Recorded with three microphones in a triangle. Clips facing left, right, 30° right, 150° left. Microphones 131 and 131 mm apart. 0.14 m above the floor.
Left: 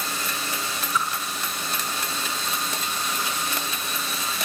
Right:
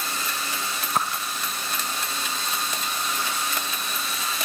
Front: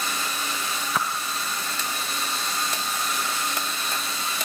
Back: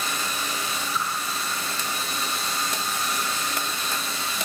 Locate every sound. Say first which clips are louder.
0.9 s a whoosh: right 1 dB, front 3 dB; 50° right, 2.5 m